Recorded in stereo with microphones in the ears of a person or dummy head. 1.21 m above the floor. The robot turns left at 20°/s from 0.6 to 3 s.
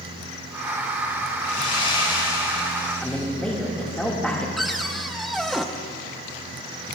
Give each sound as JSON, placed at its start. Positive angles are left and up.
{"t": 1.4, "sound": "sawing", "azimuth_deg": 45, "distance_m": 5.0}
{"t": 3.0, "sound": "a man speaking", "side_deg": -5, "distance_m": 2.5}
{"t": 4.6, "sound": "a cupboard door", "side_deg": 5, "distance_m": 0.7}